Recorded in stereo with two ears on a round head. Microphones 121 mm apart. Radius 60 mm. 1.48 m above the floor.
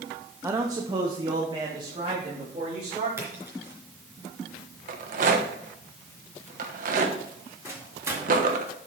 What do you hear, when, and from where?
0.4 s a man speaking: 15° right (ahead or behind), 0.7 m; by 3.1 s 35° right (ahead or behind), 4 m
3.2 s a splash: 15° right (ahead or behind), 3.5 m
4.9 s a rattle: 60° right (ahead or behind), 1.2 m
7.7 s a microwave: 20° right (ahead or behind), 2 m